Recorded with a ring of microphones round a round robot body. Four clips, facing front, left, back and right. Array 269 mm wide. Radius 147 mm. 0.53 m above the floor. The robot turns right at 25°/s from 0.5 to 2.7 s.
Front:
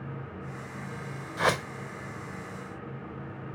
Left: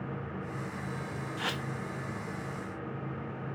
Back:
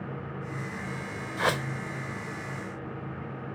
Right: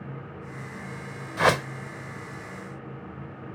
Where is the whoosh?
90° right; by 1.7 s 80° right.